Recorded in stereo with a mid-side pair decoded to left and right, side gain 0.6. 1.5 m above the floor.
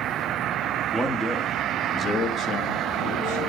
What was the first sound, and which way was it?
A man speaking, straight ahead.